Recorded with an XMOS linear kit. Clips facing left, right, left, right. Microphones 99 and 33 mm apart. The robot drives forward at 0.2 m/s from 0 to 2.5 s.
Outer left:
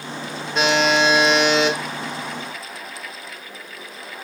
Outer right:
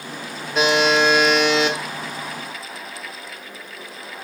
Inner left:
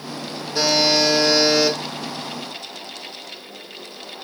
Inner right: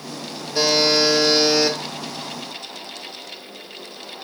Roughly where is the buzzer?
Centre.